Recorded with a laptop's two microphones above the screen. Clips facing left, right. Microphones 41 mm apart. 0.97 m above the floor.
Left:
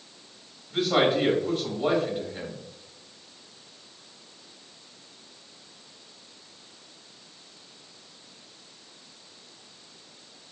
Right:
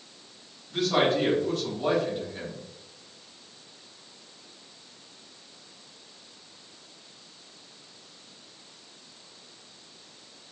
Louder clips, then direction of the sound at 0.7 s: Left 1 dB; 10° left (ahead or behind).